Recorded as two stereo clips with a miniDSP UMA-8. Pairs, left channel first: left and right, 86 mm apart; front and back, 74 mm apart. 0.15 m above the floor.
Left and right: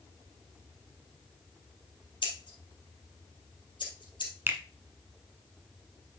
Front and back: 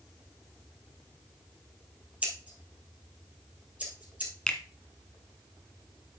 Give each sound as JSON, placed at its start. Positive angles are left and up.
{"t": 2.2, "sound": "scissors", "azimuth_deg": 110, "distance_m": 2.5}
{"t": 4.5, "sound": "a finger snap", "azimuth_deg": -70, "distance_m": 1.1}